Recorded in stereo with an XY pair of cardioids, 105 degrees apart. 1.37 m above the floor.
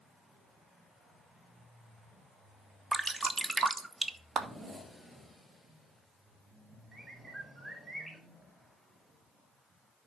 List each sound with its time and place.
2.9 s dripping: 25° right, 0.9 m
4.4 s a clap: 55° right, 1.6 m
6.9 s a bird: 15° right, 3 m